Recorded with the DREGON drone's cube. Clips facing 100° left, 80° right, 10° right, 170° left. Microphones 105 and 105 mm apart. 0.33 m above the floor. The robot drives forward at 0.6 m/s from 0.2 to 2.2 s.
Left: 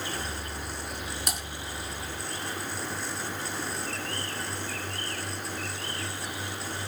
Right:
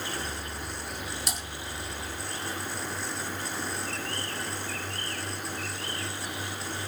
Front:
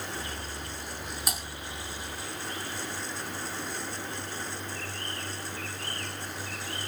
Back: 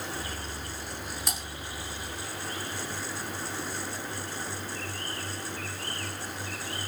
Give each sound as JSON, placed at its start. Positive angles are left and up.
{"t": 1.3, "sound": "typing on a keyboard", "azimuth_deg": 70, "distance_m": 4.0}